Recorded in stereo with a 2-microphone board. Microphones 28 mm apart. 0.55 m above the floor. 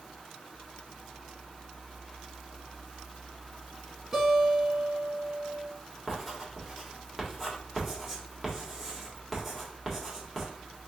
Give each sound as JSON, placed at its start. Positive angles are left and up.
{"t": 4.1, "sound": "a guitar", "side_deg": -15, "distance_m": 2.5}
{"t": 6.1, "sound": "writing", "side_deg": -5, "distance_m": 1.5}